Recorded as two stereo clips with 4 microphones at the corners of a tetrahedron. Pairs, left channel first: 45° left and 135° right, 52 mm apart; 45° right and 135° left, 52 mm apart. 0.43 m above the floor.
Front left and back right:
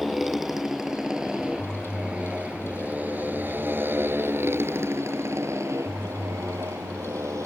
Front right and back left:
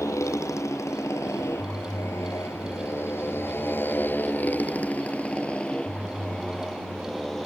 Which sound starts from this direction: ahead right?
A motorcycle, at 0.0 s.